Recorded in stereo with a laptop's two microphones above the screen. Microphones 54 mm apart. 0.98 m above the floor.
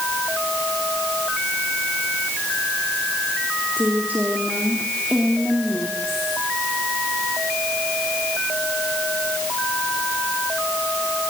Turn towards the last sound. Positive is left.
turn(degrees=5)  # may be behind; listen again after turning